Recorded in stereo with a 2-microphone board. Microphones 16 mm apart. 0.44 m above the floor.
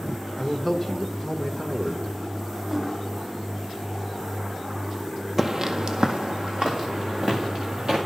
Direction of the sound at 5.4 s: 15° right (ahead or behind).